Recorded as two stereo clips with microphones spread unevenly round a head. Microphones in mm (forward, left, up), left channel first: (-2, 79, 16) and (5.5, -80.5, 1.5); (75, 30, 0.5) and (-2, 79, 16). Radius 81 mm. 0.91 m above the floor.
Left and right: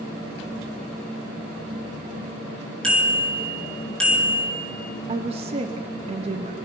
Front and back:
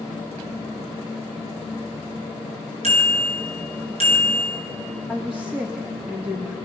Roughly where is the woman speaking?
Behind right.